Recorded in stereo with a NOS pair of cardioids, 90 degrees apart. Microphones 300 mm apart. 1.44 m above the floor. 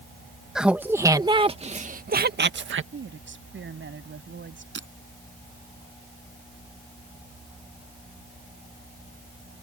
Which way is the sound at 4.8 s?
40° right.